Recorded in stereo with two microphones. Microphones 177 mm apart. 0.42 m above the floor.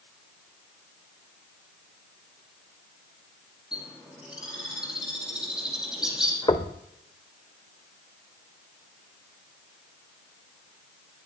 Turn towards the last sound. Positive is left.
turn(degrees=25)  # may be behind; listen again after turning